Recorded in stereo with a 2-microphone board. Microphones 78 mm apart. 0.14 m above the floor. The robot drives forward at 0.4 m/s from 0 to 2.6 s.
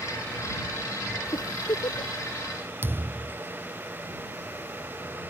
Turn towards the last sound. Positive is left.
turn(degrees=-30)  # may be behind; listen again after turning